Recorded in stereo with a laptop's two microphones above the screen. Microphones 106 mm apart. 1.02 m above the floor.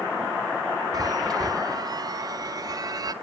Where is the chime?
40° right (ahead or behind), 0.8 m.